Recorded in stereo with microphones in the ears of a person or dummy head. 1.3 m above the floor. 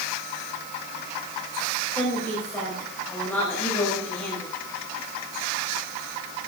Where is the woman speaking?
15° left (ahead or behind), 5.5 m.